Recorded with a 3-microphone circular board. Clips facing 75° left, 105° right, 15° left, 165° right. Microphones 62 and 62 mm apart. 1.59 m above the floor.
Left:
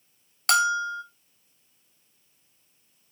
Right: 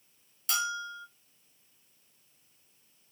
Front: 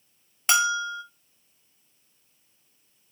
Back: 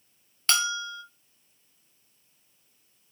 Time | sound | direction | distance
0.5 | a bell | 90° left | 0.7 m